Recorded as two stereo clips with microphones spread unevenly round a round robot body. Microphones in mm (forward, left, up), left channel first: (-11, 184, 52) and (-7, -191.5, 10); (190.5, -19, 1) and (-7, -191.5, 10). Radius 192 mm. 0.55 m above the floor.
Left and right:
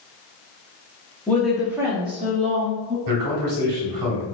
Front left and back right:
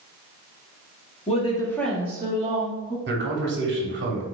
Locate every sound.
1.3 s a woman speaking: straight ahead, 1.2 m; by 3.0 s 125° right, 1.3 m
3.1 s a man speaking: 100° right, 1.2 m